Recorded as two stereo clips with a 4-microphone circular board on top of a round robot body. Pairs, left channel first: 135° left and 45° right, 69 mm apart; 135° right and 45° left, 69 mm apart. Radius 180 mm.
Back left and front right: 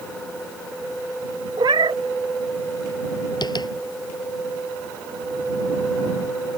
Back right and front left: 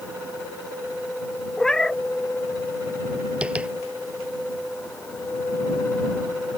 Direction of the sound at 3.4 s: 120° left.